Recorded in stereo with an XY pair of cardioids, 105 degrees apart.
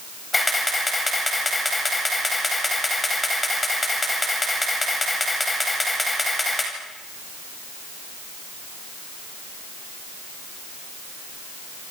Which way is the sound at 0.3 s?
15° left.